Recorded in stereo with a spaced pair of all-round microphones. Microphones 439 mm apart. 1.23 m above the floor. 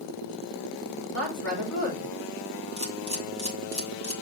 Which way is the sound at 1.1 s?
35° left (ahead or behind).